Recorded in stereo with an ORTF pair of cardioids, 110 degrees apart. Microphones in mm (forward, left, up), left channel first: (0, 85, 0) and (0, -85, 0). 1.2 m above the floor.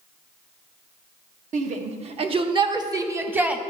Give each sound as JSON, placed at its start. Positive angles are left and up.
{"t": 1.5, "sound": "a shout", "azimuth_deg": -45, "distance_m": 1.6}